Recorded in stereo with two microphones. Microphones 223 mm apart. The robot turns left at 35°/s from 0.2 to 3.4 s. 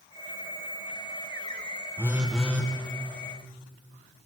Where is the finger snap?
No finger snap in this recording.